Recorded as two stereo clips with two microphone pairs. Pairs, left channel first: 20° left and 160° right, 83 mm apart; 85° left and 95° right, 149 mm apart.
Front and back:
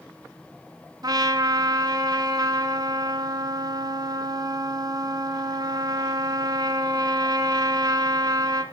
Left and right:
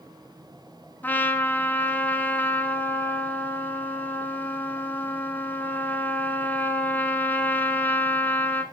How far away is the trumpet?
About 0.9 m.